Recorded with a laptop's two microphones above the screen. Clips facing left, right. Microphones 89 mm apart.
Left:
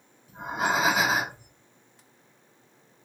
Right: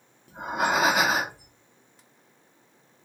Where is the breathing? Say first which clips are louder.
Right 2 dB; 70° right (ahead or behind), 1.1 m.